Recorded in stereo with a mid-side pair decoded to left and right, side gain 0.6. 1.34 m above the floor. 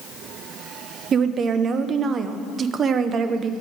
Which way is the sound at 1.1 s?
40° right.